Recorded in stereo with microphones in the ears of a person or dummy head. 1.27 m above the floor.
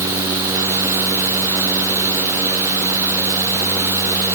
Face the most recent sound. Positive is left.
No sound to turn to.